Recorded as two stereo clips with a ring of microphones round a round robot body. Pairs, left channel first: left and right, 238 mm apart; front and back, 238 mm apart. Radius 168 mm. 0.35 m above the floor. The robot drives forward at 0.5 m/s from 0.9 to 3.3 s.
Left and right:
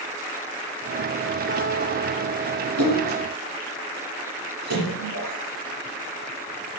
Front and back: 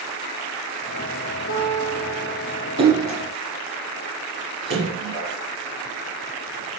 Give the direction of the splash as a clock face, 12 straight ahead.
4 o'clock.